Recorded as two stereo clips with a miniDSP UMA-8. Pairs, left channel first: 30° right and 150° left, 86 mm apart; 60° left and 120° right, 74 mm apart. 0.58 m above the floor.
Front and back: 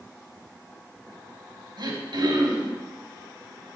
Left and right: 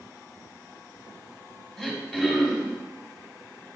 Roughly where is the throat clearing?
Behind left.